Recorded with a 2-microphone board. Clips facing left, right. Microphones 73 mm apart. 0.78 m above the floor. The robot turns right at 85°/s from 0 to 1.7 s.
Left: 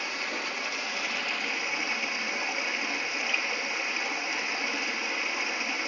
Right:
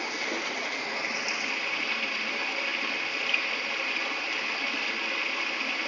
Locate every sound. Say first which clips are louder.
0.0 s running water: right 1 dB; 125° right, 1.3 m; by 5.9 s 20° left, 1.3 m